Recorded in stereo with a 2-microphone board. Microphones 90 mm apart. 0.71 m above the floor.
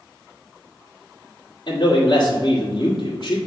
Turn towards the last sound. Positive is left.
turn(degrees=60)  # may be behind; listen again after turning